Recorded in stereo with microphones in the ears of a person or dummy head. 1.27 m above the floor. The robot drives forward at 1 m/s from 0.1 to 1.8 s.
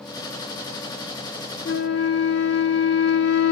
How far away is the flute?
About 1.0 m.